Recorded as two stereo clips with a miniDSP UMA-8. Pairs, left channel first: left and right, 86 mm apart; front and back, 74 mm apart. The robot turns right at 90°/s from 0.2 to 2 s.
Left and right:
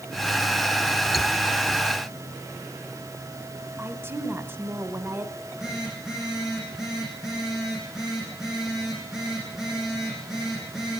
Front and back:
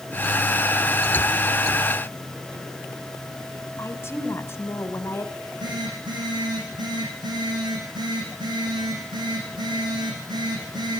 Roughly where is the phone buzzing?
Behind.